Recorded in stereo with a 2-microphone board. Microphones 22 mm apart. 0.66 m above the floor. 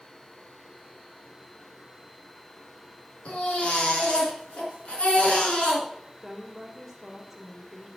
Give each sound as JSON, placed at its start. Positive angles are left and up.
{"t": 3.2, "sound": "a baby crying", "side_deg": 65, "distance_m": 4.0}
{"t": 6.2, "sound": "a woman speaking", "side_deg": -5, "distance_m": 2.5}